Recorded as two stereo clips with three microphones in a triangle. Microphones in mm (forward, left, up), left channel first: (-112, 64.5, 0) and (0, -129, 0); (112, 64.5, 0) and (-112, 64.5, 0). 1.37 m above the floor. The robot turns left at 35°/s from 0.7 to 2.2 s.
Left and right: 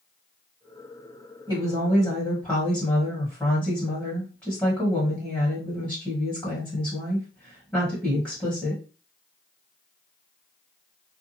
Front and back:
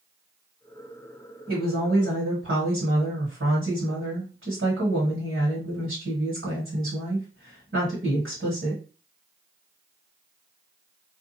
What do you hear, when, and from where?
1.5 s a woman speaking: 135° right, 1.4 m; by 8.8 s 160° right, 1.4 m